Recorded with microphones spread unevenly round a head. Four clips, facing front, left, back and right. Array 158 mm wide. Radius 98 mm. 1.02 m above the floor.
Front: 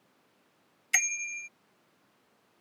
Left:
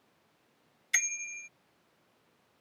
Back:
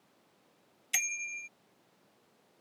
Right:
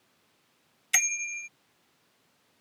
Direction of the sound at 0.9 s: 55° right.